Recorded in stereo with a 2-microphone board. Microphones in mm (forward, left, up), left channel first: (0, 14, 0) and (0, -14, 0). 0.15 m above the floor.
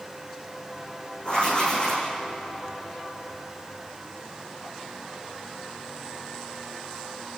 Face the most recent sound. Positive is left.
turn(degrees=35)  # may be behind; listen again after turning